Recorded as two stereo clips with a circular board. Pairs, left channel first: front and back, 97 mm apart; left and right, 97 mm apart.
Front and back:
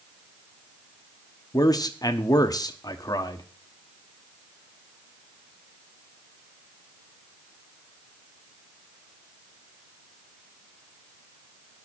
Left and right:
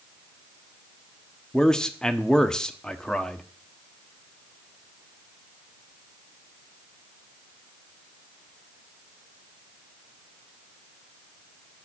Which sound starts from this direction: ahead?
A man speaking, at 1.5 s.